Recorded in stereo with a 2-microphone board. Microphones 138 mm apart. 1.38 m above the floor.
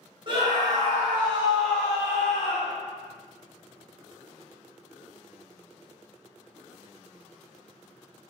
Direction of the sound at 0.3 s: 35° right (ahead or behind).